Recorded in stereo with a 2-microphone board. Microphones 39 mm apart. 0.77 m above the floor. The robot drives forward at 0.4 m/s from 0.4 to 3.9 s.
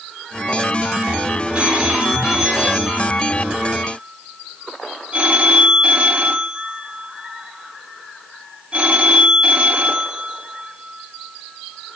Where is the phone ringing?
30° right (ahead or behind), 3.5 m; by 12.0 s 40° right (ahead or behind), 2.5 m.